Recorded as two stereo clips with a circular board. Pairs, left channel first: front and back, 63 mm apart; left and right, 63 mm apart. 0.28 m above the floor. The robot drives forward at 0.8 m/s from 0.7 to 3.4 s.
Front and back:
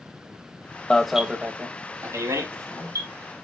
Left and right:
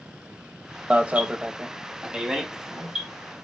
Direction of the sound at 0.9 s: 55° right.